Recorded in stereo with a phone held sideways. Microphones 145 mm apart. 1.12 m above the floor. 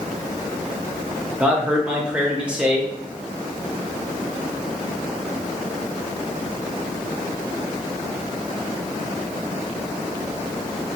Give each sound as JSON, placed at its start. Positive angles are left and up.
{"t": 1.4, "sound": "a man speaking", "side_deg": -10, "distance_m": 0.9}